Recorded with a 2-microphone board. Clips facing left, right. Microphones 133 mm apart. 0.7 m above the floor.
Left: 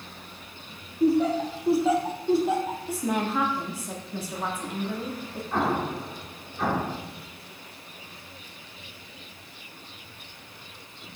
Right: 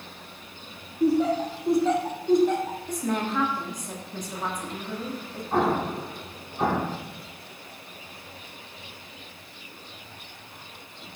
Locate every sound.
1.0 s laughter: centre (ahead or behind), 1.2 m; by 2.8 s 5° left (ahead or behind), 1.8 m
2.9 s a woman speaking: 5° left (ahead or behind), 1.2 m
5.5 s an explosion: 30° right (ahead or behind), 1.9 m